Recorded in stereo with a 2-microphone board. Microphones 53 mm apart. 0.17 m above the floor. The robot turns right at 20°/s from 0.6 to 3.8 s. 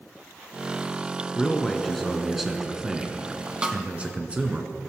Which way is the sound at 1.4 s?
165° left.